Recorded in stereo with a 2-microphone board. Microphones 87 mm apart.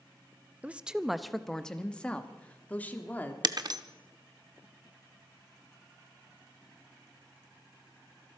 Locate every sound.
0.6 s a woman speaking: 15° right (ahead or behind), 0.5 m; by 3.3 s 20° left (ahead or behind), 1.7 m
3.4 s breaking glass: 50° right (ahead or behind), 0.8 m